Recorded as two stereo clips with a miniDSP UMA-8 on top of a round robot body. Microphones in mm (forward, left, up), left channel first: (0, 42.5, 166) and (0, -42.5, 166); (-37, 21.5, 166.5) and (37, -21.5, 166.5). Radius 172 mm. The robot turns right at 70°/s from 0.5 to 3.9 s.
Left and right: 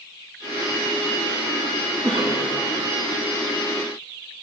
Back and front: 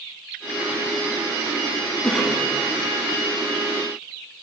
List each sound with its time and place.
2.0 s a cough: 130° right, 3.5 m; by 2.4 s 100° right, 3.5 m